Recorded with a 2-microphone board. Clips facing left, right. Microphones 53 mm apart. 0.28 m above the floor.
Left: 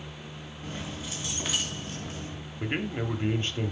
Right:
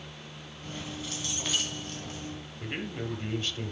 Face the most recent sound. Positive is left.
turn(degrees=30)  # may be behind; listen again after turning